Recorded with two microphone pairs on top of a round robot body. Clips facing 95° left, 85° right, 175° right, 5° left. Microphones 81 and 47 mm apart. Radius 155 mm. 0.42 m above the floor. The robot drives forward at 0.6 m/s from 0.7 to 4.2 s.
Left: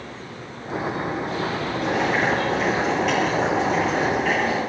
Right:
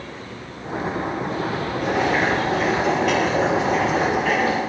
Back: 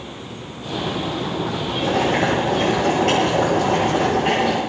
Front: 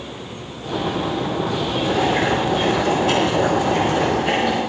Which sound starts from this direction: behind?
Boiling, at 1.8 s.